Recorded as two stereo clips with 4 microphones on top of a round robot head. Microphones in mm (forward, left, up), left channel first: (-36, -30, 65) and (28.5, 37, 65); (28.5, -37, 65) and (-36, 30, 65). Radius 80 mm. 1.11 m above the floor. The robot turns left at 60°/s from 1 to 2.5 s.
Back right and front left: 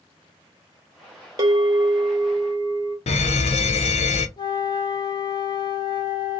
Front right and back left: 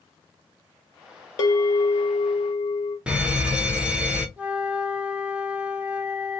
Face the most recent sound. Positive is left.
turn(degrees=-155)